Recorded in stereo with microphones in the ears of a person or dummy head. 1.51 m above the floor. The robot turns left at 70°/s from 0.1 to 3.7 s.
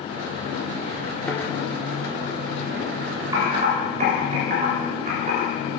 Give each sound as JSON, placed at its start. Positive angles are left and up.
{"t": 1.3, "sound": "a thud", "side_deg": 5, "distance_m": 1.7}
{"t": 3.3, "sound": "typing on a keyboard", "side_deg": -20, "distance_m": 3.0}